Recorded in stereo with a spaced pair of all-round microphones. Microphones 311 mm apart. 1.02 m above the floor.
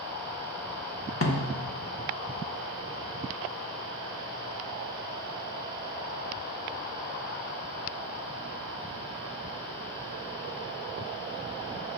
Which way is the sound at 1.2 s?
45° left (ahead or behind).